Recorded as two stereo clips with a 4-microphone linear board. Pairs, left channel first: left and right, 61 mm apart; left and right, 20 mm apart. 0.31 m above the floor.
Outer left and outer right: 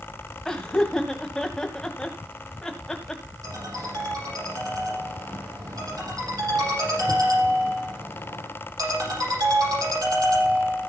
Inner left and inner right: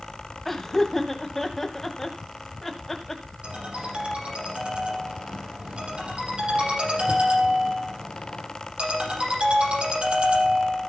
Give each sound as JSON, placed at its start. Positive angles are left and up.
{"t": 0.5, "sound": "laughter", "side_deg": 10, "distance_m": 1.6}
{"t": 3.4, "sound": "a ringtone", "side_deg": -85, "distance_m": 7.5}